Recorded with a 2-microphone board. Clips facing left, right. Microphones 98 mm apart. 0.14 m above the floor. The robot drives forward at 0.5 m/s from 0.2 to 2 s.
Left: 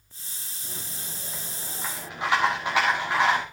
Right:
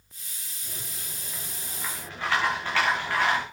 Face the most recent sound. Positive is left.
turn(degrees=15)  # may be behind; listen again after turning